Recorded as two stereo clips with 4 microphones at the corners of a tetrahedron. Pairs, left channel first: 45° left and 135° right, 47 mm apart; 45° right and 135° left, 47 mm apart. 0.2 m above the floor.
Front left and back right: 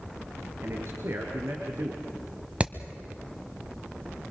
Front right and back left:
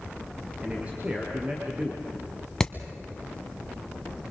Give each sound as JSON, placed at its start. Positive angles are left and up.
{"t": 0.6, "sound": "a man speaking", "azimuth_deg": -165, "distance_m": 3.0}
{"t": 2.6, "sound": "hammering", "azimuth_deg": -115, "distance_m": 1.2}